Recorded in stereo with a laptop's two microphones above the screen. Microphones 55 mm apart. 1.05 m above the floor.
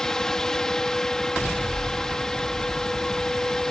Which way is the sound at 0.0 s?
10° left (ahead or behind).